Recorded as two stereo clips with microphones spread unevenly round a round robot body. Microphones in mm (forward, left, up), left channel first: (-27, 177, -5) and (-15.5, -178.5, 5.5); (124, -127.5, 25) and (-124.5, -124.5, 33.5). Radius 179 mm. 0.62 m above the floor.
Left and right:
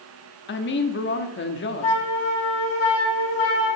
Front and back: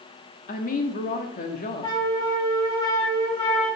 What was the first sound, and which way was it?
A woman speaking, 45° left.